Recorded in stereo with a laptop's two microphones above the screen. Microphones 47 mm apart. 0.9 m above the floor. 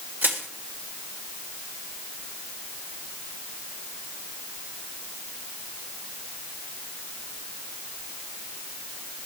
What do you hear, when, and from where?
0.2 s crushing: 45° right (ahead or behind), 1.7 m